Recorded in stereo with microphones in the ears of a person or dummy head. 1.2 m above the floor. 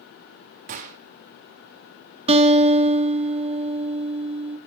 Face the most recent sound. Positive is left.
turn(degrees=-35)  # may be behind; listen again after turning